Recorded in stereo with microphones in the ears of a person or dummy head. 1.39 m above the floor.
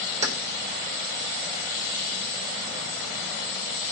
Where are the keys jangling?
45° right (ahead or behind), 4 m.